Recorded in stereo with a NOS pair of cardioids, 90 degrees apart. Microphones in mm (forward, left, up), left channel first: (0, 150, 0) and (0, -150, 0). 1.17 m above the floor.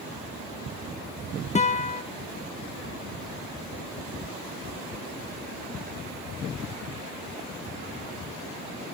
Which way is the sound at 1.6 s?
25° left.